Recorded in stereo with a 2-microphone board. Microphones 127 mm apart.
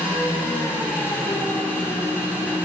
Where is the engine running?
10° right (ahead or behind), 3 m.